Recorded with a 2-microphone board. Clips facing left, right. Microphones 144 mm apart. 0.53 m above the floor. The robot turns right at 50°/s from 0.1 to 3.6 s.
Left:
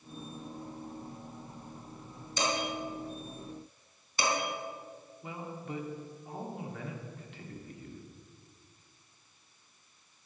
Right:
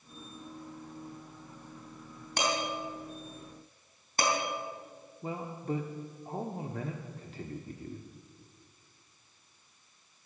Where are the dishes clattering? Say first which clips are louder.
Even; 65° right (ahead or behind), 3.5 m; by 4.3 s 50° right (ahead or behind), 3.5 m.